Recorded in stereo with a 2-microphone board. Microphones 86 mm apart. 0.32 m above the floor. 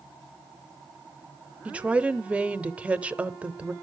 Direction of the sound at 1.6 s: 15° right (ahead or behind).